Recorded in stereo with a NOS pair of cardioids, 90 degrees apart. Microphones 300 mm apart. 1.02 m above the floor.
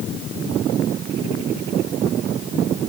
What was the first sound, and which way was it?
Only background noise.